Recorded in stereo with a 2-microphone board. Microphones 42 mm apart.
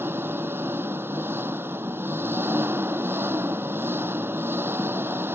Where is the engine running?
70° right (ahead or behind).